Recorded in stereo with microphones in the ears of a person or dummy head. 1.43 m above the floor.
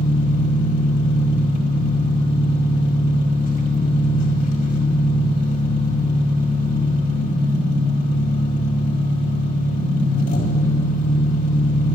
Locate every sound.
0.0 s an engine running: 45° left (ahead or behind), 1.8 m